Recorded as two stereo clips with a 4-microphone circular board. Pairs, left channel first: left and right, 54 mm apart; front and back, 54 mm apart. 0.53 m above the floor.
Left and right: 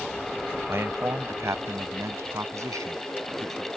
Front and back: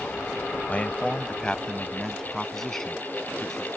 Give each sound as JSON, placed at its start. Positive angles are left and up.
{"t": 0.7, "sound": "a man speaking", "azimuth_deg": -60}